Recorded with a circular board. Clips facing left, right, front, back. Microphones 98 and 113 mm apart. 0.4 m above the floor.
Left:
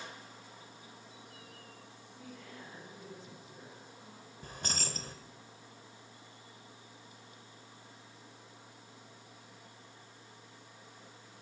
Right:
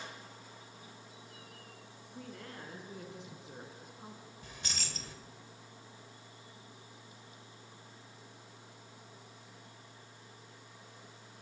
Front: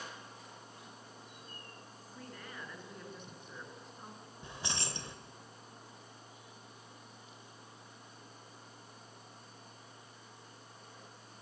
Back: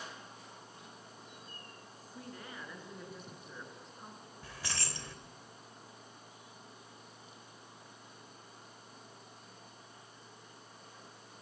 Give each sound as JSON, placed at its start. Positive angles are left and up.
{"t": 2.1, "sound": "a woman speaking", "azimuth_deg": -105, "distance_m": 6.0}
{"t": 4.4, "sound": "keys jangling", "azimuth_deg": 60, "distance_m": 1.1}